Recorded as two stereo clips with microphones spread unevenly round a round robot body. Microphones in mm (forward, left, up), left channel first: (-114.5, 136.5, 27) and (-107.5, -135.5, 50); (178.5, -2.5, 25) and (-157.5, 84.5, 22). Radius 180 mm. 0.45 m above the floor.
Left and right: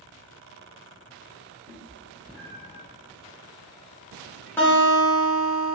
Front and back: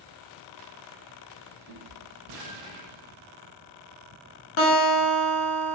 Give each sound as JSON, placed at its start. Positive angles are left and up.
{"t": 1.7, "sound": "a cat meowing", "azimuth_deg": -170, "distance_m": 1.7}
{"t": 4.6, "sound": "a guitar", "azimuth_deg": 15, "distance_m": 0.9}